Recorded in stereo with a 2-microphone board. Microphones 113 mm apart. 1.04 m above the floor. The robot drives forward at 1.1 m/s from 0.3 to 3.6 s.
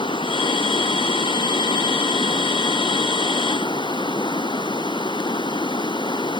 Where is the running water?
50° left (ahead or behind); by 6.4 s 45° left (ahead or behind).